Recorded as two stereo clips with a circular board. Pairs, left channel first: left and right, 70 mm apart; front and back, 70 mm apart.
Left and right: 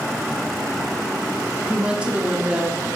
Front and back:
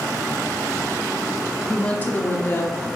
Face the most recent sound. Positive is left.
turn(degrees=-25)